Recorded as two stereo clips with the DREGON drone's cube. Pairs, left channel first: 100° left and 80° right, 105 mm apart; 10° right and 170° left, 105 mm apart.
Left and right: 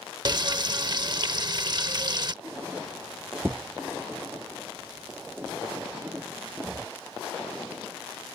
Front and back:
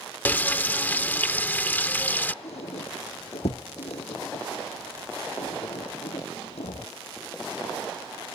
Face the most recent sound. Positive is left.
turn(degrees=-15)